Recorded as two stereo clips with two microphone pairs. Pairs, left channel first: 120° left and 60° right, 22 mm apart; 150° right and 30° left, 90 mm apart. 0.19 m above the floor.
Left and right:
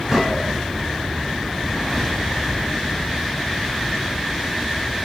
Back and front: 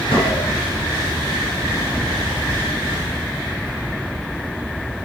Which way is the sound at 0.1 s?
135° right.